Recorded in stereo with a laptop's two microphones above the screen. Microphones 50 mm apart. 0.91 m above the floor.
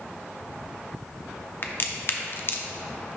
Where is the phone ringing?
No phone ringing in this recording.